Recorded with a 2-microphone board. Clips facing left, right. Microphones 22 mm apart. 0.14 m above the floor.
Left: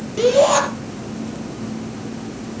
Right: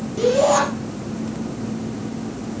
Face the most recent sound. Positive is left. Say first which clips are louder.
# left 2 dB
turn(degrees=35)  # may be behind; listen again after turning